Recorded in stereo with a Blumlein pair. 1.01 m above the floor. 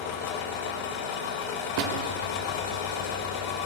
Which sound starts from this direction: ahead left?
An engine running, at 0.0 s.